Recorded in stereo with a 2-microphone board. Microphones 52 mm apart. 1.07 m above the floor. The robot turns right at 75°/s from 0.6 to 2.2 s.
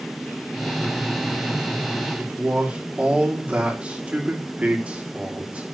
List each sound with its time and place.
2.2 s a man speaking: 25° right (ahead or behind), 3 m